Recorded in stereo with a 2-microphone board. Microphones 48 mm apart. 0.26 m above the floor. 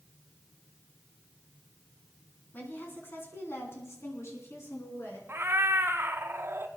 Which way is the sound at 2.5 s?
40° left (ahead or behind).